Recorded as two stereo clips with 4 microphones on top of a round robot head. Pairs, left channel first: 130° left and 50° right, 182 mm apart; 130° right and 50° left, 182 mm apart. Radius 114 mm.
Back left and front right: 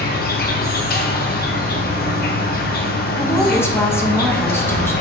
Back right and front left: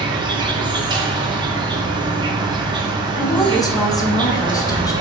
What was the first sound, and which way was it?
An insect, 115° left.